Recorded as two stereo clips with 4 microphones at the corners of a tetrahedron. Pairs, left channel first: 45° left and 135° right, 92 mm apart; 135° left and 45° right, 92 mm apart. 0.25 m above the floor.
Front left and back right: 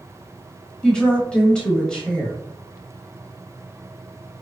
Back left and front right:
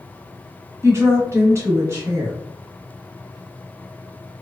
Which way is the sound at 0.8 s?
30° right.